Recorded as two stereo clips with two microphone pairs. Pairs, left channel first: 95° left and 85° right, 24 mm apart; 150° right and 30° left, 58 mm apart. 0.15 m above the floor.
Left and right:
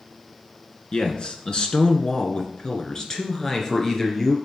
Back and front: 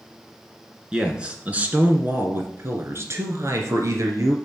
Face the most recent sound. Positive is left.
turn(degrees=25)